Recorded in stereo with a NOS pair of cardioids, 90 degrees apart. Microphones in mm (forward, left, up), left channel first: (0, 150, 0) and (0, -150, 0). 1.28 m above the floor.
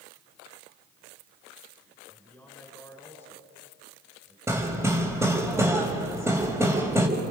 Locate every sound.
2.1 s a man speaking: 5° left, 4 m
4.5 s hammering: 10° right, 4 m